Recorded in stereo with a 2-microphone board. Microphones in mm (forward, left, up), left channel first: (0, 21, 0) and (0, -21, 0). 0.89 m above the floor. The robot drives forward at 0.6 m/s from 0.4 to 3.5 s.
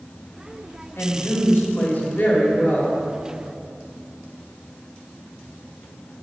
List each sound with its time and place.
1.0 s a woman speaking: 65° left (ahead or behind), 1.5 m; by 3.0 s 35° left (ahead or behind), 2 m